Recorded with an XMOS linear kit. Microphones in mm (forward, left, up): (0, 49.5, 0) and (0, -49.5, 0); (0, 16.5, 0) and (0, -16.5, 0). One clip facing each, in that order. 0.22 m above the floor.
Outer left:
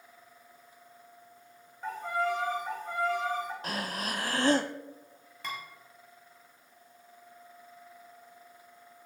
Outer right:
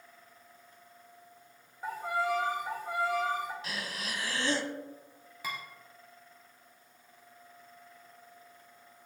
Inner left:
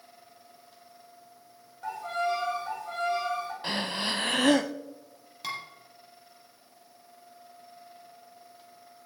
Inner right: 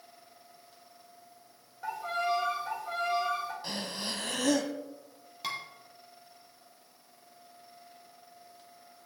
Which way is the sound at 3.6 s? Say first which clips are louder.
Outer left 5 dB, inner left 6 dB; 45° left (ahead or behind).